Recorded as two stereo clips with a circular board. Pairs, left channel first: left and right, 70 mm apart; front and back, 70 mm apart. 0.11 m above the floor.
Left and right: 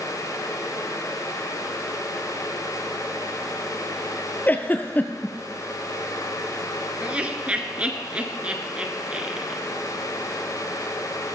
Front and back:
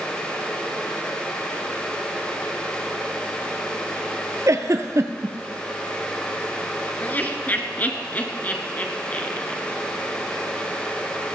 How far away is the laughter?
About 1.3 m.